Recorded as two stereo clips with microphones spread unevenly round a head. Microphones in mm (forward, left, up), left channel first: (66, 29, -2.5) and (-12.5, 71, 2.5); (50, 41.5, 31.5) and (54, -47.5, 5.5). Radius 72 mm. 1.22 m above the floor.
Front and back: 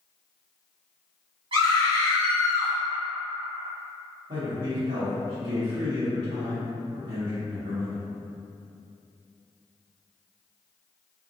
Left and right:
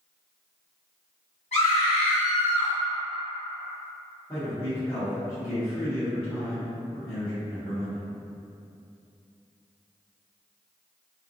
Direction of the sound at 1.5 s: 140° left.